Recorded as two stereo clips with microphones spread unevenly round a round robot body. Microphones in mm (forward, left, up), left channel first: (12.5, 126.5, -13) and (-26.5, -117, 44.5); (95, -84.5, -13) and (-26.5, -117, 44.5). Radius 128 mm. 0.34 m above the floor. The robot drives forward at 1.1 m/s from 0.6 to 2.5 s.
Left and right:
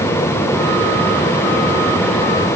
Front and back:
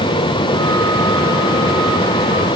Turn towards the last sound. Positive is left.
No sound to turn to.